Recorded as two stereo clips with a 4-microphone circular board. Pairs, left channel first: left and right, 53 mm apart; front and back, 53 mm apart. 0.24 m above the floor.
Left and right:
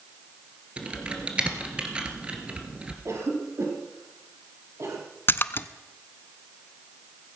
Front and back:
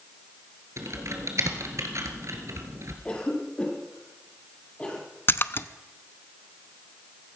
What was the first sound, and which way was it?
Typing on a keyboard, 160° right.